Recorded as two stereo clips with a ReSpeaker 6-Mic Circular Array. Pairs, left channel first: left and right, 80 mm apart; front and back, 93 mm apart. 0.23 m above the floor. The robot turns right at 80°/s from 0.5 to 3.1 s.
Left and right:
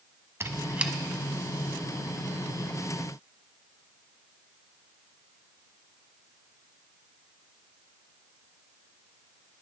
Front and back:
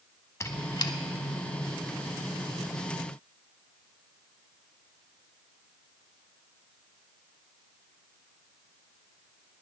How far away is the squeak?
About 0.6 m.